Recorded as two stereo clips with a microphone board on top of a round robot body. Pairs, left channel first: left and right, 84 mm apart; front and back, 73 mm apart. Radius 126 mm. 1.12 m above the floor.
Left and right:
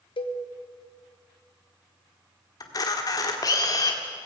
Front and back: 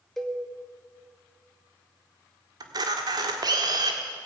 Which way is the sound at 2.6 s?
140° left.